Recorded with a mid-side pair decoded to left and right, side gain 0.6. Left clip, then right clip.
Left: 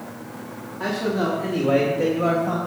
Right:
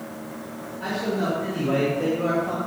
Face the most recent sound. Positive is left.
turn(degrees=25)